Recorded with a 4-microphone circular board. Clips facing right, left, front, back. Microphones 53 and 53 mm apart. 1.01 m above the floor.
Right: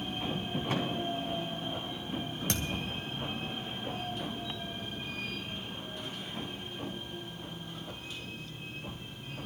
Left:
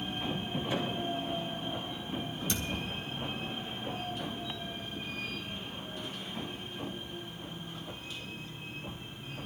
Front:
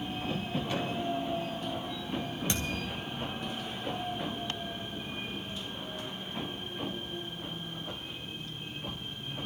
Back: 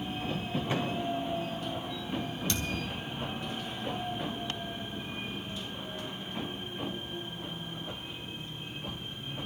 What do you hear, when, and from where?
0.7 s a thud: 115° right, 4.5 m
2.5 s a thud: 65° right, 2.5 m